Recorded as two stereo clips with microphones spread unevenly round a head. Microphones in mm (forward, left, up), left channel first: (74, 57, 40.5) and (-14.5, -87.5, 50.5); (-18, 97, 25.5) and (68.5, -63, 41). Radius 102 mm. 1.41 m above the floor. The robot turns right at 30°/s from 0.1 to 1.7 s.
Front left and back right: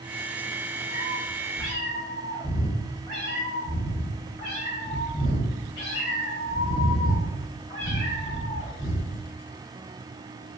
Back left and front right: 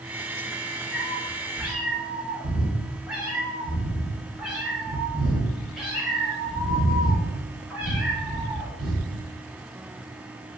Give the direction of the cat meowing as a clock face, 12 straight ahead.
12 o'clock.